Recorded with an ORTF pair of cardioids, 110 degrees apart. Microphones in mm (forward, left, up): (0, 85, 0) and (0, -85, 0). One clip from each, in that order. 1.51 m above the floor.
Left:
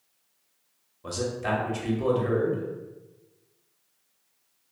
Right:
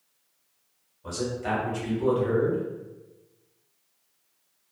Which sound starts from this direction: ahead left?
A man speaking, at 1.0 s.